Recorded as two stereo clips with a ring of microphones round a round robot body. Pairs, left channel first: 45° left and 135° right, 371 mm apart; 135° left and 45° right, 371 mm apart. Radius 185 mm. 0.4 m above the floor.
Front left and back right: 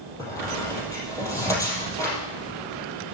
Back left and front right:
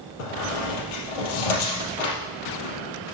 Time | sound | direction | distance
0.2 | a squeak | 130° left | 3.5 m